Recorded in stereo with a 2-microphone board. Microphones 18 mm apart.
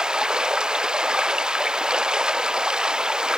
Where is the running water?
45° right (ahead or behind).